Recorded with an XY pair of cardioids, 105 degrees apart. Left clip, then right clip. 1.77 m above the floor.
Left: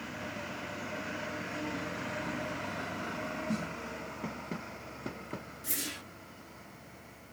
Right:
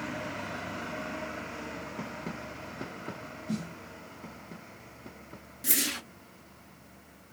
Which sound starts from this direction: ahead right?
A whoosh, at 5.6 s.